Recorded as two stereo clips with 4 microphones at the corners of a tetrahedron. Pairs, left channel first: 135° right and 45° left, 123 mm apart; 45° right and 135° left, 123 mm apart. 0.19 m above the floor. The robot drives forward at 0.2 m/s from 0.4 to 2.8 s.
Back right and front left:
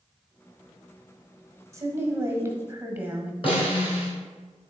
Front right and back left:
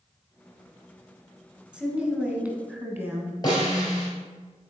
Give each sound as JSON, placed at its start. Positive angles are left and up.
{"t": 1.7, "sound": "a woman speaking", "azimuth_deg": 65, "distance_m": 1.2}
{"t": 3.4, "sound": "a snare drum", "azimuth_deg": -95, "distance_m": 3.0}